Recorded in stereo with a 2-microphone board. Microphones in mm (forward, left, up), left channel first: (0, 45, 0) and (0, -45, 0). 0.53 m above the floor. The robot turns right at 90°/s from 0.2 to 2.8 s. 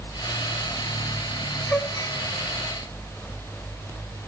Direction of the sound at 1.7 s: 10° left (ahead or behind).